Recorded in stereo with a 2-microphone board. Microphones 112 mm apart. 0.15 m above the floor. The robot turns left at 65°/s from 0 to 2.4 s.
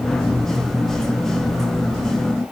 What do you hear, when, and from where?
Only background noise.